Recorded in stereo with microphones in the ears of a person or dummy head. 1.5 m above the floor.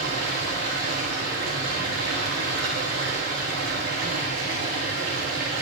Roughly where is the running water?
Right.